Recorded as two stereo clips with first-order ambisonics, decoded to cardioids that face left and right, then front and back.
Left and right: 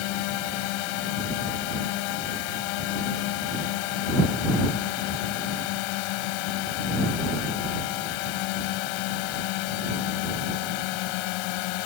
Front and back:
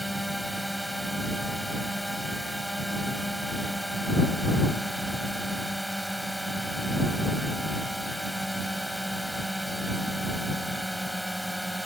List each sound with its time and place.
0.0 s a drone: 90° left